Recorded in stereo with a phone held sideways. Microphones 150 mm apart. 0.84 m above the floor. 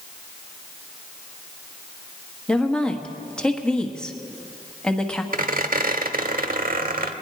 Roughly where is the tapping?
I don't hear tapping.